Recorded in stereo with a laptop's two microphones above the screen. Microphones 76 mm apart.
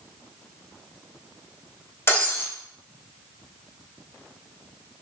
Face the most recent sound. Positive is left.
turn(degrees=30)  # may be behind; listen again after turning